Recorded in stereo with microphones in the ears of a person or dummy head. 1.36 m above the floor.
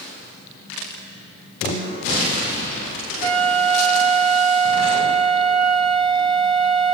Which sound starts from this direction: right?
A flute, at 3.2 s.